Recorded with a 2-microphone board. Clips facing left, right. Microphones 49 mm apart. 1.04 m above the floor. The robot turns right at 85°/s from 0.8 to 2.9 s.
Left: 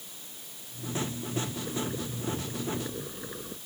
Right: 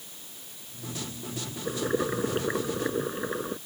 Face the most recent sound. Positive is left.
turn(degrees=-40)